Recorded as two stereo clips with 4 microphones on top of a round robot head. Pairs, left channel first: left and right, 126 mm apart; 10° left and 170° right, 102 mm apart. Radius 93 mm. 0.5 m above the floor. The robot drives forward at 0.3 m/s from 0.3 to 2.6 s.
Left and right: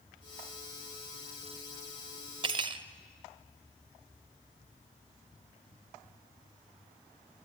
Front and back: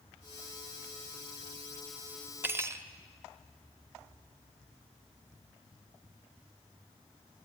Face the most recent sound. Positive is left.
turn(degrees=-115)